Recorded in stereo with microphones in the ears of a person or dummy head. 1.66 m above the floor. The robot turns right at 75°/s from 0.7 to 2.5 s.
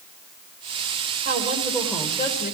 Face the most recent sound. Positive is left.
turn(degrees=45)